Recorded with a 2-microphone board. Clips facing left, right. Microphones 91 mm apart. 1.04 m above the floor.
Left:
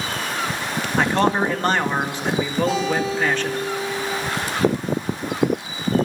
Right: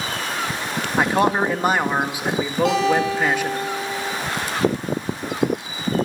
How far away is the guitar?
About 9.5 m.